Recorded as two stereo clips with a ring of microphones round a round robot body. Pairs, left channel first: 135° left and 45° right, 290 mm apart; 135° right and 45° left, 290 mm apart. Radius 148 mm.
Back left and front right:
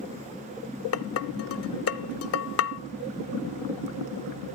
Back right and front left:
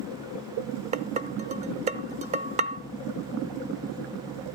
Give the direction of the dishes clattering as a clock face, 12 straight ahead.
8 o'clock.